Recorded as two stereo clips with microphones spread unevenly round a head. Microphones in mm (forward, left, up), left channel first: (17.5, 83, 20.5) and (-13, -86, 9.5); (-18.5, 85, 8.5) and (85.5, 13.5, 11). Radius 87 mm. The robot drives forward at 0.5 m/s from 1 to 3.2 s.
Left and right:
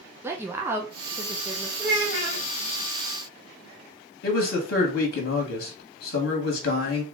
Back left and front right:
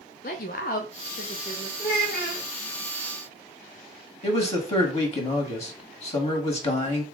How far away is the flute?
I don't hear a flute.